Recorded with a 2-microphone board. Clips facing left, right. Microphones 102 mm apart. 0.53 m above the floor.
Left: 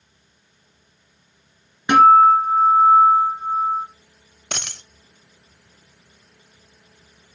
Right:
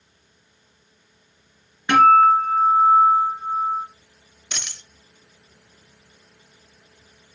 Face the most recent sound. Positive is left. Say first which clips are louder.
# left 5 dB
turn(degrees=60)  # may be behind; listen again after turning